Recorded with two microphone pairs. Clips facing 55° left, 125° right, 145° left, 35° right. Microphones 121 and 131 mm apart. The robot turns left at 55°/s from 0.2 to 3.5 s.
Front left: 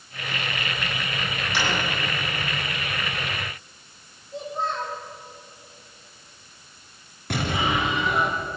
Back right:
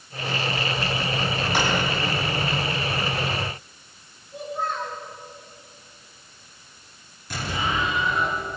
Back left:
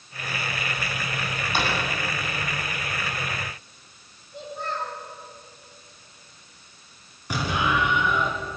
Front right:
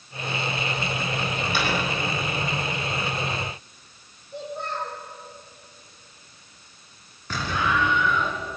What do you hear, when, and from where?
1.5 s a drawer: 170° right, 8 m; by 1.7 s straight behind, 8 m
4.3 s a child speaking: 10° right, 9 m
7.3 s an explosion: 70° left, 3.5 m